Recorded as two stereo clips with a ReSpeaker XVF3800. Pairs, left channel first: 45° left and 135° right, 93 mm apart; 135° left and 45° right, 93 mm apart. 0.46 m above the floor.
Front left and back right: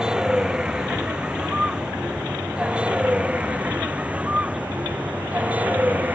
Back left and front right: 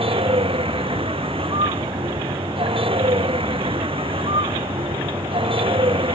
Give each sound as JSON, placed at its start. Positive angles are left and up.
{"t": 0.0, "sound": "a vehicle", "azimuth_deg": -55}